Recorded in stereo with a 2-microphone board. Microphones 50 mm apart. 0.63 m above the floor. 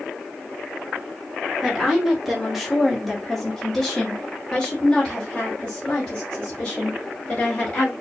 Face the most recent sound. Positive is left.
turn(degrees=20)  # may be behind; listen again after turning